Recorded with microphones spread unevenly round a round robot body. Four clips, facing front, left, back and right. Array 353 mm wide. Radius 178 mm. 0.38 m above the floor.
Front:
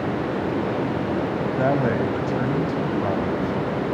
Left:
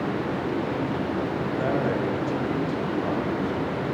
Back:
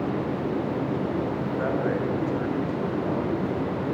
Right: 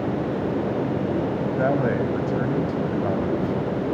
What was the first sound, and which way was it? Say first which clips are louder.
A man speaking: right 3 dB, front 5 dB; 35° right.